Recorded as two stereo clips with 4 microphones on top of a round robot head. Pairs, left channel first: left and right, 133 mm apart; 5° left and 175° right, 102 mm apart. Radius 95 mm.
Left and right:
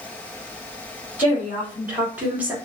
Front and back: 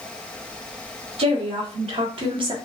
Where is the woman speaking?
170° right, 2.5 m; by 2.5 s 165° right, 1.3 m.